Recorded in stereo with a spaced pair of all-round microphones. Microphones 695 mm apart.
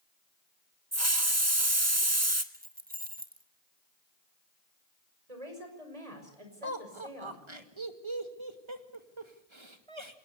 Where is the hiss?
25° right (ahead or behind), 1.4 m.